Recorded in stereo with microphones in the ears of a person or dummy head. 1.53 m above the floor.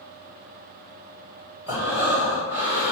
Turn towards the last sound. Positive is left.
turn(degrees=-10)  # may be behind; listen again after turning